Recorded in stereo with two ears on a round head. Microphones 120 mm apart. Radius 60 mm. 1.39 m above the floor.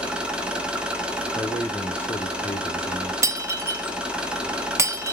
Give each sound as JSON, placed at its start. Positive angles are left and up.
{"t": 0.0, "sound": "an engine running", "side_deg": -5, "distance_m": 0.8}
{"t": 1.4, "sound": "a man speaking", "side_deg": 10, "distance_m": 1.1}
{"t": 3.2, "sound": "breaking glass", "side_deg": -20, "distance_m": 0.5}